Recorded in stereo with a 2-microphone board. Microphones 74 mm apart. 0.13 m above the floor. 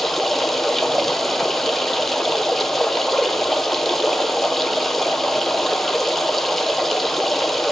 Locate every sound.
0.0 s running water: 5° left (ahead or behind), 0.7 m